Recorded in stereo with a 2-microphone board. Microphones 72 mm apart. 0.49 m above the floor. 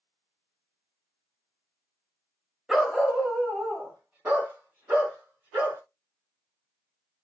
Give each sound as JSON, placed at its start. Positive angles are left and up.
{"t": 2.7, "sound": "a dog barking", "side_deg": 0, "distance_m": 0.7}